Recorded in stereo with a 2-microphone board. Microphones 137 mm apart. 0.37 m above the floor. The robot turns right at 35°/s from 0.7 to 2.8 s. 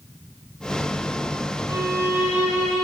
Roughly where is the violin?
Ahead right.